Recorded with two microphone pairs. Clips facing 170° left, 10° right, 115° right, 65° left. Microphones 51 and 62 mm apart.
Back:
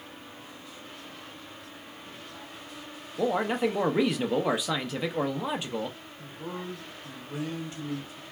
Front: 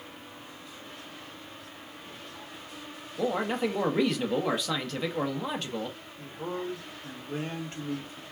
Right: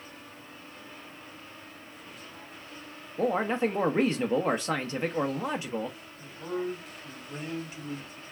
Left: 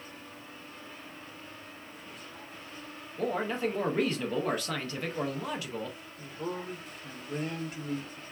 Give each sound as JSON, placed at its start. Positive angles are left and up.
{"t": 3.2, "sound": "a man speaking", "azimuth_deg": -120, "distance_m": 0.5}
{"t": 6.2, "sound": "a man speaking", "azimuth_deg": 35, "distance_m": 1.7}